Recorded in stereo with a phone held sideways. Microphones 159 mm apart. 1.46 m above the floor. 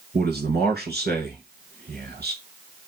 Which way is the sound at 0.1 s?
80° right.